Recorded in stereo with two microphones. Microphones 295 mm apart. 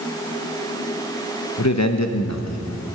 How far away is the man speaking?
About 1.2 m.